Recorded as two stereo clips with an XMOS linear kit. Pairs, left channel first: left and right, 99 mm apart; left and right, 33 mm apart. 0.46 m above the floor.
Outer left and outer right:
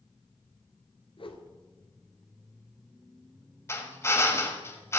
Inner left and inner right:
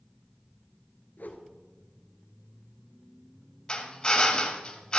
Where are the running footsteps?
No running footsteps in this recording.